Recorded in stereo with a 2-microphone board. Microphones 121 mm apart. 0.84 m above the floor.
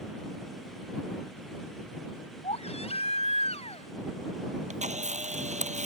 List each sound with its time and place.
2.4 s a baby crying: 55° left (ahead or behind)
4.7 s a camera shutter: 70° right (ahead or behind)